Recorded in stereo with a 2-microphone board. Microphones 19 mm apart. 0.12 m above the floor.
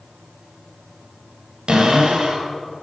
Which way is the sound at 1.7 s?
50° right (ahead or behind).